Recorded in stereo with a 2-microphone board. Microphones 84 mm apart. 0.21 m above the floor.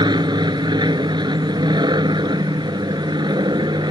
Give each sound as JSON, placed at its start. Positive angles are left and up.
{"t": 0.0, "sound": "an aircraft", "side_deg": -60}